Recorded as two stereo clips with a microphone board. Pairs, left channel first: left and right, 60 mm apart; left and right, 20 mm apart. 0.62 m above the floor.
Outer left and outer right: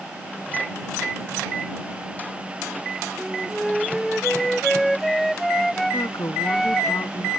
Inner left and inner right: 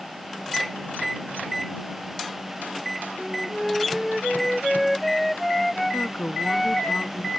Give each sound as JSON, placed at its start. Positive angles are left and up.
{"t": 3.2, "sound": "a flute", "side_deg": 5}
{"t": 5.9, "sound": "a woman speaking", "side_deg": 75}